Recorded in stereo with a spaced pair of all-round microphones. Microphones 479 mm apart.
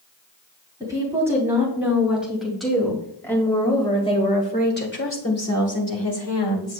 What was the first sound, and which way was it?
A woman speaking, 5° right (ahead or behind).